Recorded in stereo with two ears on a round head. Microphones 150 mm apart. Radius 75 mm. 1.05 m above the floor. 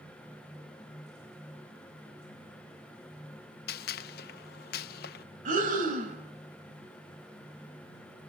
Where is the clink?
No clink in this recording.